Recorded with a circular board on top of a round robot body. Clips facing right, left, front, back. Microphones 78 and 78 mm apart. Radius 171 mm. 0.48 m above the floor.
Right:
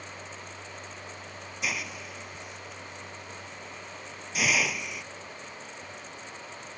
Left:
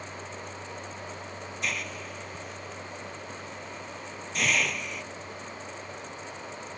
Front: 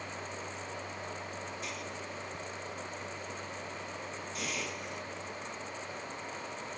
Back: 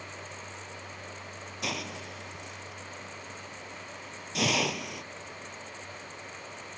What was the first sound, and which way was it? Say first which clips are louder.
A hiss: even, back 4 dB; 175° right.